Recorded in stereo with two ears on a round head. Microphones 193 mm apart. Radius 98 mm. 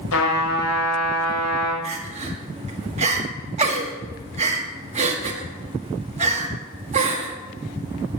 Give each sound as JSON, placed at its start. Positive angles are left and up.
{"t": 0.1, "sound": "a trumpet", "side_deg": 70, "distance_m": 4.0}
{"t": 1.8, "sound": "crying", "side_deg": -30, "distance_m": 1.5}